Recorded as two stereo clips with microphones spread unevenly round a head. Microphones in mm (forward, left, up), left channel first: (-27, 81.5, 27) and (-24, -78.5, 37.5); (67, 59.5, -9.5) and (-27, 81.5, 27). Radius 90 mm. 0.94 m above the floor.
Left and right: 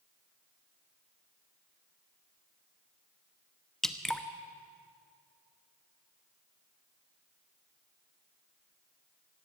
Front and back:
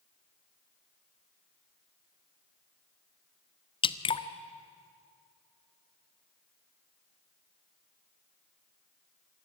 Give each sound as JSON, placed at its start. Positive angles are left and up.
{"t": 3.8, "sound": "dripping", "azimuth_deg": 5, "distance_m": 1.0}